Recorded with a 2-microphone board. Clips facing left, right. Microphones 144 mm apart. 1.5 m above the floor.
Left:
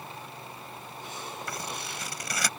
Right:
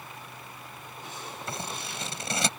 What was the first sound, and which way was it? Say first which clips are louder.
Scissors: right 3 dB; 25° right (ahead or behind).